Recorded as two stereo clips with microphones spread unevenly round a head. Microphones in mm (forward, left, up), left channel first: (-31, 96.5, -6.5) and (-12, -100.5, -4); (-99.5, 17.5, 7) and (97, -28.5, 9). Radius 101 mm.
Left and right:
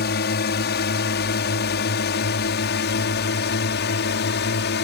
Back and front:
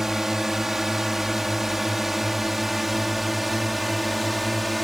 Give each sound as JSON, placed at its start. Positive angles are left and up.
{"t": 0.0, "sound": "a drone", "azimuth_deg": 75}